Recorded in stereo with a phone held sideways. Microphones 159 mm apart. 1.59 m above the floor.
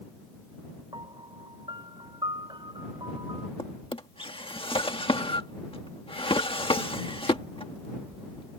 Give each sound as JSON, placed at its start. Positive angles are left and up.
{"t": 0.9, "sound": "a piano", "side_deg": -30}
{"t": 3.6, "sound": "a drawer", "side_deg": 35}